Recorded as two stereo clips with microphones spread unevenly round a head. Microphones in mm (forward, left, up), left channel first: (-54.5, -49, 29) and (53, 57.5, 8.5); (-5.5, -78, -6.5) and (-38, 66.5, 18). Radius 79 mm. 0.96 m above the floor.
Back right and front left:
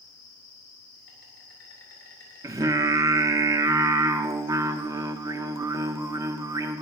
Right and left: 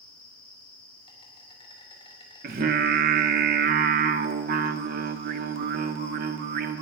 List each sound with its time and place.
0.0 s an insect: 135° right, 6.5 m
2.4 s singing: 100° left, 1.0 m